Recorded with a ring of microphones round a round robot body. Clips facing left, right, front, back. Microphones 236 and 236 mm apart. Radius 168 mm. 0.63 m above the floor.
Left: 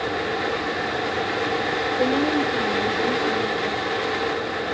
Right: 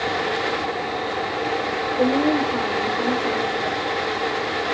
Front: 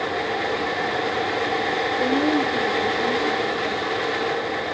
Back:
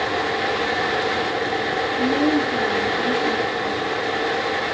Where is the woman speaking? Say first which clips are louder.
Right 3 dB, back 2 dB; 140° right, 8 m.